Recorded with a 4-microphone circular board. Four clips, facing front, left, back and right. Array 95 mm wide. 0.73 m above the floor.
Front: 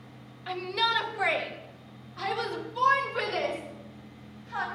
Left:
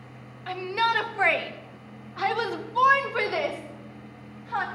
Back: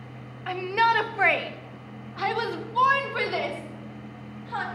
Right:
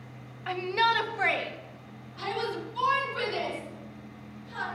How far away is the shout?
About 0.8 m.